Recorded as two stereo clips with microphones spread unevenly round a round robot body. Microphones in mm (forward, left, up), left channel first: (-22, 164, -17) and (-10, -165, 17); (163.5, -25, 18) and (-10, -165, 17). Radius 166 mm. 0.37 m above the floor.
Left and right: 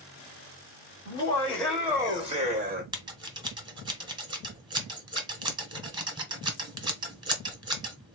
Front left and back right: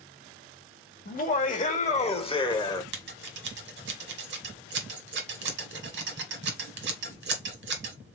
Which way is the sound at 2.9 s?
165° right.